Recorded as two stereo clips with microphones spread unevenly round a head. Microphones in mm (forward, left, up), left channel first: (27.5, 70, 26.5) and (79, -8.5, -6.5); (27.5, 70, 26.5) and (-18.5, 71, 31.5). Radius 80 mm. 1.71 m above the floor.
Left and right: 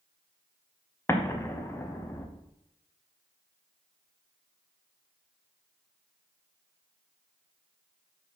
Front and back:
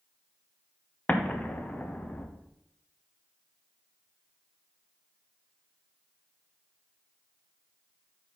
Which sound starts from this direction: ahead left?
An explosion, at 1.1 s.